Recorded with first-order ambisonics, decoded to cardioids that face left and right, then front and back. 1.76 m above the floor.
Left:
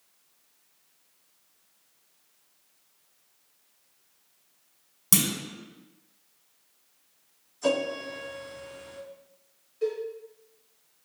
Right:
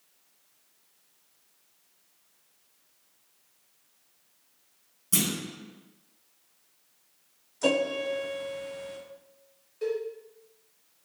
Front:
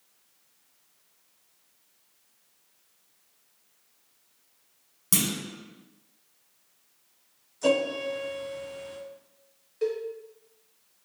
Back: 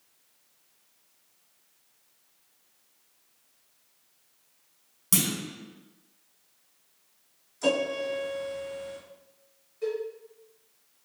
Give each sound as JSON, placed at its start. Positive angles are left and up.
{"t": 5.1, "sound": "a clunk", "azimuth_deg": 80, "distance_m": 1.4}
{"t": 7.6, "sound": "a piano", "azimuth_deg": -100, "distance_m": 1.1}
{"t": 9.8, "sound": "a cowbell", "azimuth_deg": -10, "distance_m": 1.0}